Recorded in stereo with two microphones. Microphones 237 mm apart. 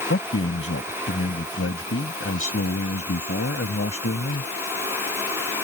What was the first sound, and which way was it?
A man speaking, 70° left (ahead or behind).